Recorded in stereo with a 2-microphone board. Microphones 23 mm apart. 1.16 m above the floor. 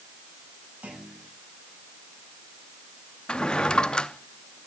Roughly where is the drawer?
Left.